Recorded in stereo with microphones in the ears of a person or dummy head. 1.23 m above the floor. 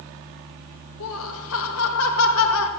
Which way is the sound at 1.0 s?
70° left (ahead or behind).